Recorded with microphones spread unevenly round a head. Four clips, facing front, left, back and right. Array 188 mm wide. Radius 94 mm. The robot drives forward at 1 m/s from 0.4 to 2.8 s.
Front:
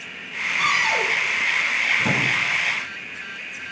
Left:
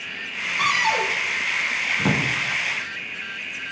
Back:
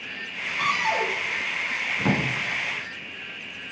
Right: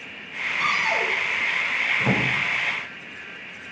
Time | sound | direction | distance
0.6 | a cupboard door | 75° left | 8.5 m
2.0 | a drawer | 105° left | 9 m